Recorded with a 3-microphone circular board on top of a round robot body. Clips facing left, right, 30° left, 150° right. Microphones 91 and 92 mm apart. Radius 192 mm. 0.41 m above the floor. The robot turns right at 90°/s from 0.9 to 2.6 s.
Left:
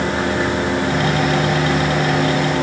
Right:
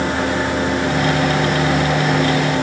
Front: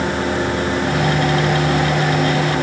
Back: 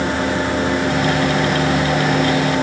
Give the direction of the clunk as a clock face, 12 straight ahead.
No clunk in this recording.